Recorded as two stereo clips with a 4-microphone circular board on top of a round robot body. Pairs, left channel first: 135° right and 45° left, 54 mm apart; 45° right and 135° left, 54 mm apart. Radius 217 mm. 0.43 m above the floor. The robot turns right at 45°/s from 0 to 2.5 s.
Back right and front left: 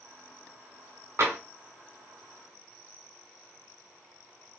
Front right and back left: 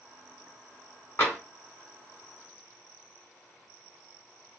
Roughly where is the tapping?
Ahead.